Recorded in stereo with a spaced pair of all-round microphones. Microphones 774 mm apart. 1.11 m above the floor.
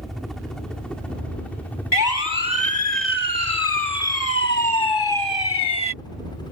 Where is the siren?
70° left (ahead or behind); by 5.9 s 30° left (ahead or behind).